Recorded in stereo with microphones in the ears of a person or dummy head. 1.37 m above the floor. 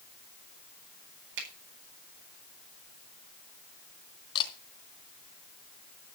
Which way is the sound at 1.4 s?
65° right (ahead or behind).